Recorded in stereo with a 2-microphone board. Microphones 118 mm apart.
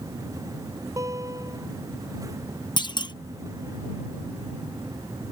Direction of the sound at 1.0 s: 25° right (ahead or behind).